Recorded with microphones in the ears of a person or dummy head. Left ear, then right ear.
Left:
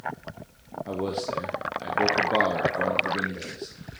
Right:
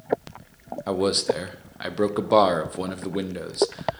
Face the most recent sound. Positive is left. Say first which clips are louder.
# right 7 dB
turn(degrees=-50)  # may be behind; listen again after turning